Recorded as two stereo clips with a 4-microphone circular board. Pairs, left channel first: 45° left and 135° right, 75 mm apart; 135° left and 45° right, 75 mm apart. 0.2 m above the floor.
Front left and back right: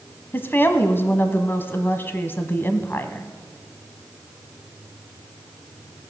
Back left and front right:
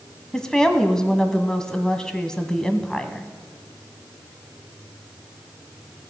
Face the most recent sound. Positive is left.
turn(degrees=60)